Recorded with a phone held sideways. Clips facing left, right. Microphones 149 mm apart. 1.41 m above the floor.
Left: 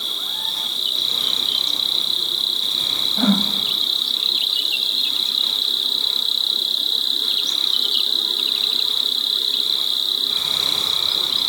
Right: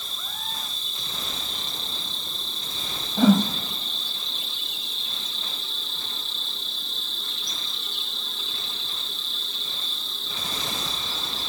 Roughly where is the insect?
Left.